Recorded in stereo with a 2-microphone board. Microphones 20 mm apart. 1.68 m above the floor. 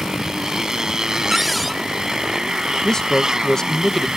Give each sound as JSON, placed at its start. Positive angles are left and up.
{"t": 0.0, "sound": "a motorcycle", "side_deg": -25}
{"t": 1.3, "sound": "a cupboard door", "side_deg": 0}
{"t": 2.8, "sound": "a man speaking", "side_deg": 30}